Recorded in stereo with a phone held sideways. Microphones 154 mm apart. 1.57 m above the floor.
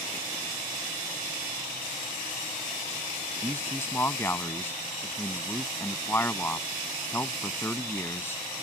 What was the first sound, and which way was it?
A man speaking, 15° left (ahead or behind).